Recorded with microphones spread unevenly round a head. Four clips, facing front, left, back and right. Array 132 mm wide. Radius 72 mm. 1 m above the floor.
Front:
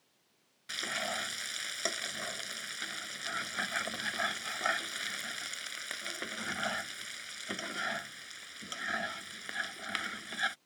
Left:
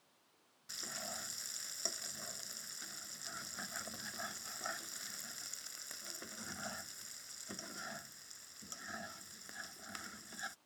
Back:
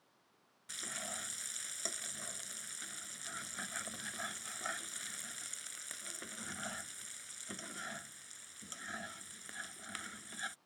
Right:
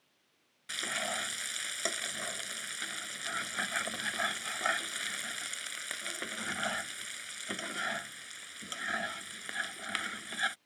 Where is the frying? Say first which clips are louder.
Right 11 dB, front 10 dB; 45° right.